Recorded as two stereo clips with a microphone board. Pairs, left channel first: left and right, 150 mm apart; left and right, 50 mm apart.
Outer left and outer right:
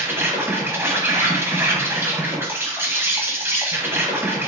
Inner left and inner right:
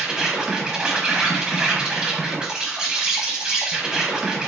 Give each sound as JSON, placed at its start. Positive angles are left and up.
{"t": 0.0, "sound": "an insect", "side_deg": -15, "distance_m": 0.9}